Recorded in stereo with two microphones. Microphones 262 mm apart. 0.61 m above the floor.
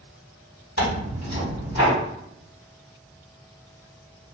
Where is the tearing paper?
60° left (ahead or behind), 1.6 m.